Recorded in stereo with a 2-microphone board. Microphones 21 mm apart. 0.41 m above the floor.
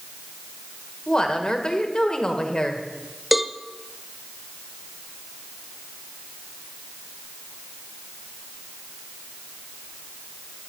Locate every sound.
1.1 s a woman speaking: 40° left (ahead or behind), 1.6 m
3.3 s a cowbell: 5° right (ahead or behind), 0.6 m